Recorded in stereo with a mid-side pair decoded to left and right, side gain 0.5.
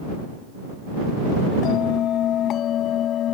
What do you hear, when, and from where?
1.6 s a bell: 60° left